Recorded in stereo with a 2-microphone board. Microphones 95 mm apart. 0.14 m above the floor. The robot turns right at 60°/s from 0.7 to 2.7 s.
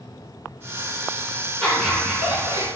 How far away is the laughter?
About 1.8 m.